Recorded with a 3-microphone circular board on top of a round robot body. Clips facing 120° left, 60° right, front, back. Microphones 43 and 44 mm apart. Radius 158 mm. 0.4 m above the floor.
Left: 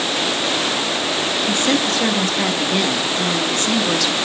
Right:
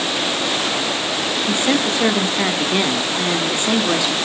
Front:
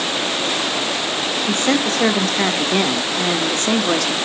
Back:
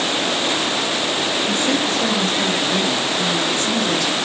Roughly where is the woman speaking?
Ahead.